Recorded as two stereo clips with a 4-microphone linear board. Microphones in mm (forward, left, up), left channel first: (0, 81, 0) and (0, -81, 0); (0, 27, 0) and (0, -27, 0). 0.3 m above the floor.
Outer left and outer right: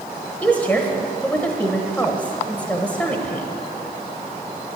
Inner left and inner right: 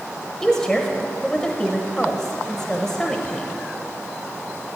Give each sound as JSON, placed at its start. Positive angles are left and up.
{"t": 0.4, "sound": "a woman speaking", "side_deg": 10, "distance_m": 1.2}